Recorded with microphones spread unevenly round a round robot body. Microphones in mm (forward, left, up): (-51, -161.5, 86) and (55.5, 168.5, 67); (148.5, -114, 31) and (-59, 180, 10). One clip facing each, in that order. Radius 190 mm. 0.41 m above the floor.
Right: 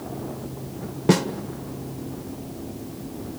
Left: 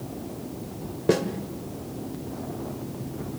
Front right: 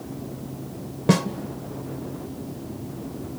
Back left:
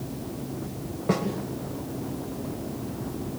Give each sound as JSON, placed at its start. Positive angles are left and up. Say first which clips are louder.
{"t": 1.1, "sound": "a snare drum", "louder": "right 2 dB, front right 5 dB", "azimuth_deg": -40, "distance_m": 1.7}